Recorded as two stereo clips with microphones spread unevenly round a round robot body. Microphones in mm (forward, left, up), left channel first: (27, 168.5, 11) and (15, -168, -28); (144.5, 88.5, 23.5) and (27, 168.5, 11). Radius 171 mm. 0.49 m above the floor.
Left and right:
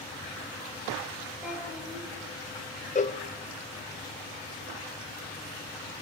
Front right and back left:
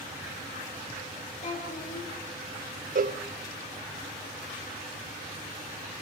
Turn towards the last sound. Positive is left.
turn(degrees=160)